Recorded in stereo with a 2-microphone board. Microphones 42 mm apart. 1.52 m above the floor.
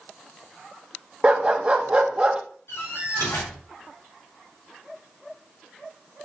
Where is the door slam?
80° left, 4.5 m.